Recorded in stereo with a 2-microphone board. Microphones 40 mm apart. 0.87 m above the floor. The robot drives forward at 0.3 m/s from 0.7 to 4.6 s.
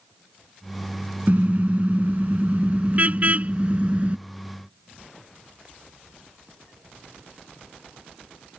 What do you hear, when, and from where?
1.3 s a car horn: 45° right (ahead or behind); by 4.2 s 40° right (ahead or behind)